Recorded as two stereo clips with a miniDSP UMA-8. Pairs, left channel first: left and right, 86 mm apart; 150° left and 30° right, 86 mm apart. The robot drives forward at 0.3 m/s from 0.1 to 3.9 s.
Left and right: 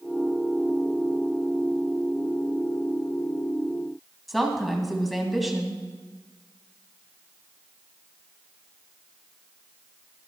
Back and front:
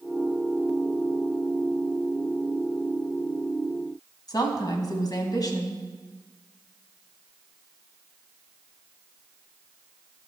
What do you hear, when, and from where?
4.3 s a woman speaking: straight behind, 2 m